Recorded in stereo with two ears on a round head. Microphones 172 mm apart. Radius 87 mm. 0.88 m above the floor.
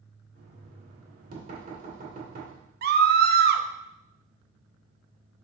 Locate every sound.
0.3 s knocking: 40° right (ahead or behind), 2 m
2.8 s a scream: 50° right (ahead or behind), 0.8 m